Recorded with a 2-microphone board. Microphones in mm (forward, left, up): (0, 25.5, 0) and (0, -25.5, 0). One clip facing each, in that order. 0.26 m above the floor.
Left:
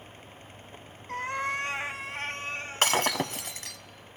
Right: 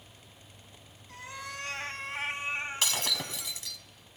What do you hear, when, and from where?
1.1 s a cat meowing: 60° left (ahead or behind), 0.6 m; by 3.6 s 35° right (ahead or behind), 1.5 m
2.8 s breaking glass: 50° left (ahead or behind), 0.6 m